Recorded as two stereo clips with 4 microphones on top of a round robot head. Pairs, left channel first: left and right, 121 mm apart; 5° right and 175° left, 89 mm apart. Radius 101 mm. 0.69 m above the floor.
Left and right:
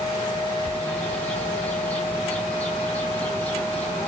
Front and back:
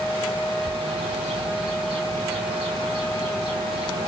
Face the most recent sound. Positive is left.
turn(degrees=170)